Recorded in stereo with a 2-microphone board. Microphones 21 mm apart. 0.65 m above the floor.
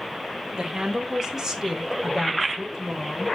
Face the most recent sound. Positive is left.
turn(degrees=-5)  # may be behind; listen again after turning